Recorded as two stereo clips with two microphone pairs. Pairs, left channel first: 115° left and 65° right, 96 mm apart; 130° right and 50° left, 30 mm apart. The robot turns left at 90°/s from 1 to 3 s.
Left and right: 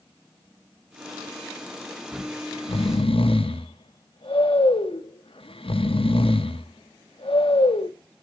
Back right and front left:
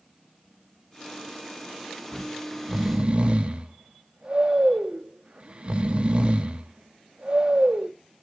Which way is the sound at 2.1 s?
Straight behind.